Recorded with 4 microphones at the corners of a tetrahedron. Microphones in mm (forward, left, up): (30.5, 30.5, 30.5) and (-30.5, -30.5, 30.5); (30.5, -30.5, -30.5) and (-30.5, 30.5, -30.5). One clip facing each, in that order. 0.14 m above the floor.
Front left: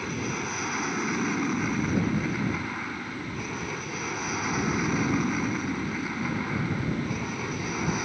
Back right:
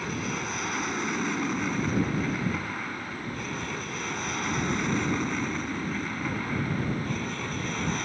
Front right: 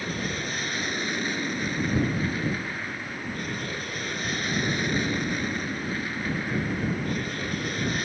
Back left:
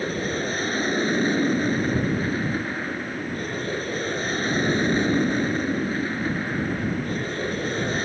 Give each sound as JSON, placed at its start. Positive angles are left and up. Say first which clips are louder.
{"t": 0.0, "sound": "an aircraft", "louder": "front left 1 dB, back left 5 dB", "azimuth_deg": 130}